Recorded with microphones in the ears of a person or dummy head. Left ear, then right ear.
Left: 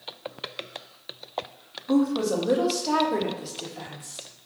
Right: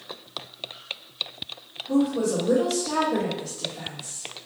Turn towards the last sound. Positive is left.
turn(degrees=20)  # may be behind; listen again after turning